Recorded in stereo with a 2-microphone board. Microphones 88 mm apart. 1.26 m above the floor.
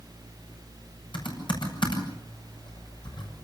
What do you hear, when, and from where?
1.1 s typing on a keyboard: 65° left (ahead or behind), 6.5 m